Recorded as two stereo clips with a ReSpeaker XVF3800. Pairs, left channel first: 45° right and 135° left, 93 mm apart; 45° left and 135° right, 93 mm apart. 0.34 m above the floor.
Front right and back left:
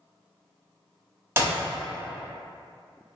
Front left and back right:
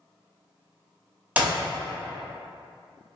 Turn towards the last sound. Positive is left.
turn(degrees=165)